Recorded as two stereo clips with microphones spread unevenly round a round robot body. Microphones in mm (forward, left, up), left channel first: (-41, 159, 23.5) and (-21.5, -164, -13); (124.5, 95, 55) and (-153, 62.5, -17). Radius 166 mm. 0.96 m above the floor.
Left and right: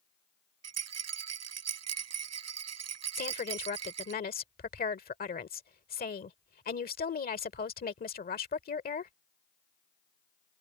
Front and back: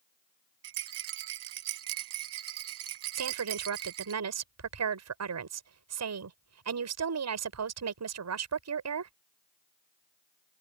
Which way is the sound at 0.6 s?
130° right.